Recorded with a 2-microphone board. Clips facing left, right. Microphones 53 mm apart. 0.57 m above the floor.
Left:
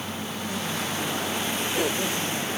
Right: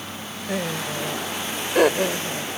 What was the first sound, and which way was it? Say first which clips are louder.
Laughter: right 5 dB; 70° right (ahead or behind).